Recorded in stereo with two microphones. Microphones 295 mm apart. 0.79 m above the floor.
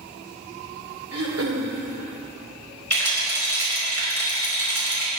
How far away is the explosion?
No explosion in this recording.